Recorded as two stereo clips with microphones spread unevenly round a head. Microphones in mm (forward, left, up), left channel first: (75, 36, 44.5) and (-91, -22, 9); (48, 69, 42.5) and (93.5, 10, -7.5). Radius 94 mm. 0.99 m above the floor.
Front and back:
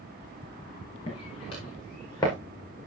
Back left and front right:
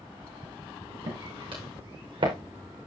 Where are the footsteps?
40° right, 7 m; by 2.3 s 50° right, 7.5 m.